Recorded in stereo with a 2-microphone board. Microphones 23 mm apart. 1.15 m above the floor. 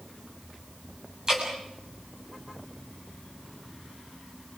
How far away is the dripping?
About 7 m.